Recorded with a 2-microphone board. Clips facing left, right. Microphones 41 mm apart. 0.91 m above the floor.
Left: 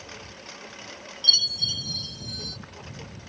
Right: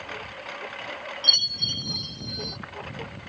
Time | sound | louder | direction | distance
0.0 | a lawn mower | right 6 dB | 30° right (ahead or behind) | ?
1.2 | a chime | left 1 dB | 10° right (ahead or behind) | ?